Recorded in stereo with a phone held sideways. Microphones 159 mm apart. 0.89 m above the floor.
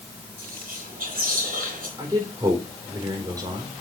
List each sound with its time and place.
0.4 s whispering: 70° right (ahead or behind), 3 m
2.0 s a man speaking: 25° right (ahead or behind), 3.5 m